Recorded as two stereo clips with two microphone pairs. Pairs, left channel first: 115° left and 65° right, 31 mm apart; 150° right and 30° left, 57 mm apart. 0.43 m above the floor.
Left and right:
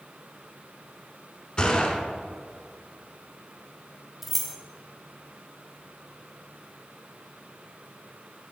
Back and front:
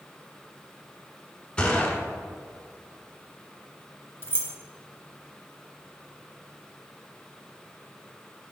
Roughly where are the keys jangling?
Behind right.